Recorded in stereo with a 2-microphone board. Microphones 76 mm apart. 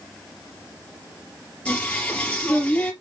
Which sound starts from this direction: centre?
Singing, at 1.6 s.